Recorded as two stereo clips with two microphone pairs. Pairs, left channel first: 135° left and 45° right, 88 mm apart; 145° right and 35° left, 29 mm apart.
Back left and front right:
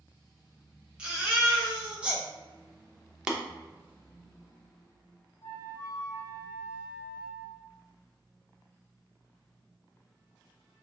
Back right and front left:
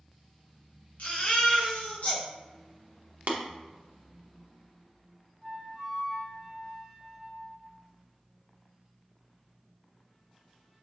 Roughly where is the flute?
Behind left.